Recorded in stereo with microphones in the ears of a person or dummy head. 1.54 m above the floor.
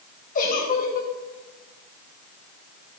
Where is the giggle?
40° left (ahead or behind), 1.4 m.